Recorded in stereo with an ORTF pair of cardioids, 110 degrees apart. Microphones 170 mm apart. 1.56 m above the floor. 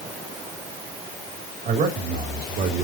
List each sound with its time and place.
1.6 s a man speaking: 60° right, 3 m; by 2.8 s 65° right, 2.5 m